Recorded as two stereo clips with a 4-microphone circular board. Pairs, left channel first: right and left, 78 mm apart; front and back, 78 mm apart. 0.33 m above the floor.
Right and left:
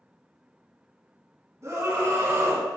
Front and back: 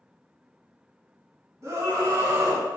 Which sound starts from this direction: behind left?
A scream, at 1.6 s.